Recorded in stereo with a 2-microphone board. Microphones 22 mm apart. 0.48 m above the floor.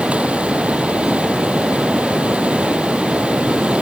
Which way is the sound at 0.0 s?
65° right (ahead or behind).